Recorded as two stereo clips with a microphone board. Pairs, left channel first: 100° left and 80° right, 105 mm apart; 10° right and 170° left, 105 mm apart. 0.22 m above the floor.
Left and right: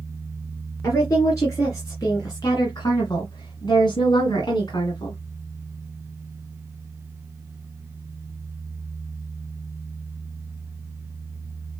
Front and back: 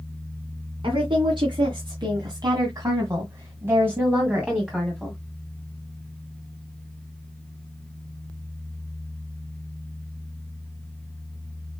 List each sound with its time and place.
0.8 s a woman speaking: 155° left, 2.5 m; by 5.2 s 80° left, 1.7 m